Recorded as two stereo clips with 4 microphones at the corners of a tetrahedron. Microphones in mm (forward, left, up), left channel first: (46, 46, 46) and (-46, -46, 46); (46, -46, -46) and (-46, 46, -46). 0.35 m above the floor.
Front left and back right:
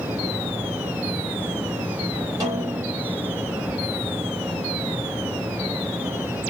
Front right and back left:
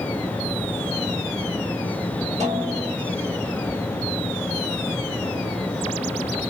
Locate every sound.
2.4 s a snare drum: 165° left, 3 m